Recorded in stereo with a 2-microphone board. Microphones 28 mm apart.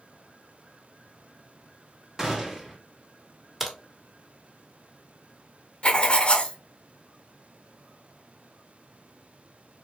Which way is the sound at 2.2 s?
20° right (ahead or behind).